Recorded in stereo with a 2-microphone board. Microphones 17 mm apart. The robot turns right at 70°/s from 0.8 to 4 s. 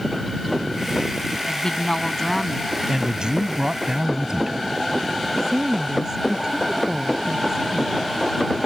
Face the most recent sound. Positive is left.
turn(degrees=-40)  # may be behind; listen again after turning